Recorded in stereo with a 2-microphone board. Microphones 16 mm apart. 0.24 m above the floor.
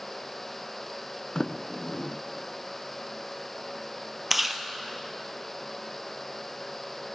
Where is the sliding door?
65° left (ahead or behind), 0.5 m.